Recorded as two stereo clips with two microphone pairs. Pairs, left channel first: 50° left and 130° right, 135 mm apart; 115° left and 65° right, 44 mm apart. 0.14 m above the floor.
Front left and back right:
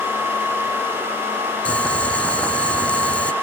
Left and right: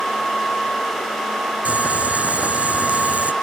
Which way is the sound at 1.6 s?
30° right.